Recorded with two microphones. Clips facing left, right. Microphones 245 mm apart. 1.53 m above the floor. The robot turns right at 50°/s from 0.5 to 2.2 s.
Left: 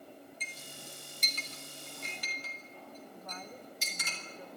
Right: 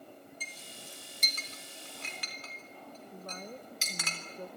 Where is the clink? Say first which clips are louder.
Left 1 dB; 5° right (ahead or behind), 3.5 m; by 4.1 s 85° right, 3.5 m.